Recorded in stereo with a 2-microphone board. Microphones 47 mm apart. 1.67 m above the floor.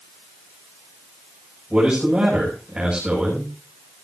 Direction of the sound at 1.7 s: 25° right (ahead or behind).